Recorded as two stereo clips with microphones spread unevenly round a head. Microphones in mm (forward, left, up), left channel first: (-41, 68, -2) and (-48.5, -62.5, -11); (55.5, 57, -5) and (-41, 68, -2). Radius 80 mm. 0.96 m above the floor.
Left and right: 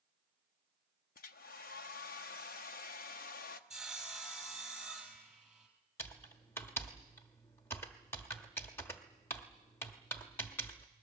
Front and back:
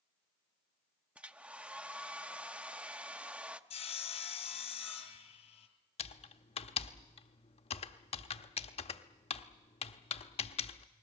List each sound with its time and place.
1.1 s a hair dryer: 95° left, 0.9 m
3.7 s sawing: straight ahead, 3 m
6.0 s typing on a keyboard: 10° left, 0.9 m